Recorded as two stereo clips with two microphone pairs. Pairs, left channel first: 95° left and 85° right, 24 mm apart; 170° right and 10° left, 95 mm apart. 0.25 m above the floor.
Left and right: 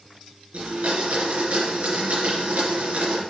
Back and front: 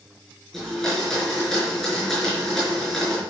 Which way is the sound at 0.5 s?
85° right.